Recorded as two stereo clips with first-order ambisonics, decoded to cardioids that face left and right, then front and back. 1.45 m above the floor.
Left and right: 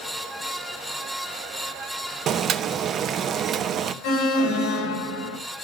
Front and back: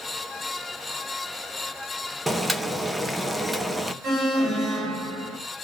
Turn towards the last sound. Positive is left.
turn(degrees=120)